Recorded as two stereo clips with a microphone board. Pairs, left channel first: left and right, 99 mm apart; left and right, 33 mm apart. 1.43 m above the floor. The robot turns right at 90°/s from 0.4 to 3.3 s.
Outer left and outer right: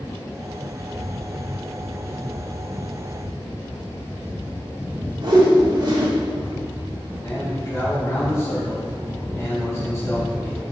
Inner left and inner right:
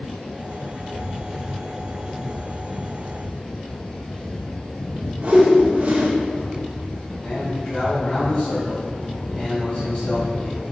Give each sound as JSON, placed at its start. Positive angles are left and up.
{"t": 5.2, "sound": "a whoosh", "side_deg": -45, "distance_m": 1.9}
{"t": 7.2, "sound": "a man speaking", "side_deg": 30, "distance_m": 3.0}